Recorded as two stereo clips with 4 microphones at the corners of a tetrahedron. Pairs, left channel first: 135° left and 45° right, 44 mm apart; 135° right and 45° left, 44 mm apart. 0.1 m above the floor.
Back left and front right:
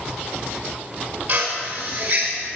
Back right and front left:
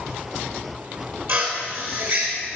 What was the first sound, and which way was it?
A drill, 15° left.